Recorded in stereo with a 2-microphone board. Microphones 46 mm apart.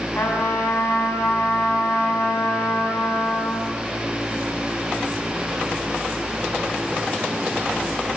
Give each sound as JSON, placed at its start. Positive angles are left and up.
{"t": 0.1, "sound": "a trumpet", "side_deg": 65, "distance_m": 8.0}